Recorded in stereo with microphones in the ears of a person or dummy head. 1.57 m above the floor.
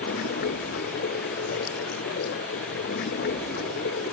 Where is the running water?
60° left (ahead or behind).